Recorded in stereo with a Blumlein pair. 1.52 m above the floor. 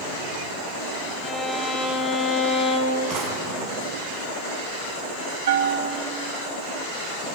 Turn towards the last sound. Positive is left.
turn(degrees=-60)